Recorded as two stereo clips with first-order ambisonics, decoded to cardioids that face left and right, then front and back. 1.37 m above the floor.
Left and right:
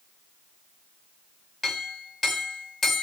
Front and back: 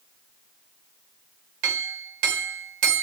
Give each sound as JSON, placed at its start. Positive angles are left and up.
{"t": 1.6, "sound": "a clink", "azimuth_deg": 170, "distance_m": 1.1}